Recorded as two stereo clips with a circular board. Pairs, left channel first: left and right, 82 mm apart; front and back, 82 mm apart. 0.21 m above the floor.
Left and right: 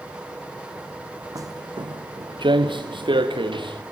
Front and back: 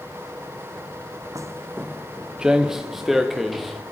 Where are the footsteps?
135° right, 0.7 m; by 3.8 s 90° right, 3 m.